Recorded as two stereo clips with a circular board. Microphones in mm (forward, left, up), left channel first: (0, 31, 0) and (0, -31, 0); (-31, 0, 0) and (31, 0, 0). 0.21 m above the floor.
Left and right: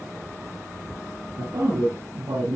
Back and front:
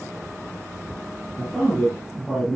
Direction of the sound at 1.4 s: 85° right.